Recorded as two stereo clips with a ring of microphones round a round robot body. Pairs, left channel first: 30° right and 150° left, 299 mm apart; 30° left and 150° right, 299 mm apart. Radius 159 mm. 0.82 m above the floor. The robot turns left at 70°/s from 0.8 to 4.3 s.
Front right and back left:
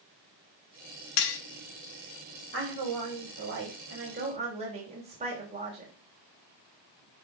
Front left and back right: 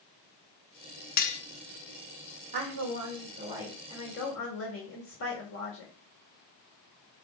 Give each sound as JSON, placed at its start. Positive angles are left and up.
{"t": 1.2, "sound": "cutlery clinking", "azimuth_deg": -30, "distance_m": 0.9}
{"t": 2.5, "sound": "a woman speaking", "azimuth_deg": -155, "distance_m": 3.0}